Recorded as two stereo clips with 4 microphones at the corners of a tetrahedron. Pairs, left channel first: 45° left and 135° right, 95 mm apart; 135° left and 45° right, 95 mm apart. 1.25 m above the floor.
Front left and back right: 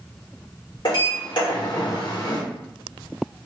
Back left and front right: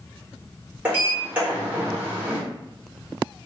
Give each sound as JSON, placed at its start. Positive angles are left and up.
{"t": 0.8, "sound": "a sliding door", "azimuth_deg": 25, "distance_m": 1.6}